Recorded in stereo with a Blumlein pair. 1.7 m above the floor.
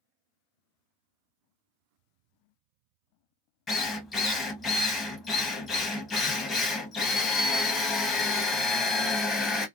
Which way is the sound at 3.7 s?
20° left.